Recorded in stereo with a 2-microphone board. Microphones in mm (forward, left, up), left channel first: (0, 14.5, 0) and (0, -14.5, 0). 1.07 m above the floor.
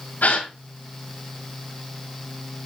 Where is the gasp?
75° left (ahead or behind), 2.5 m.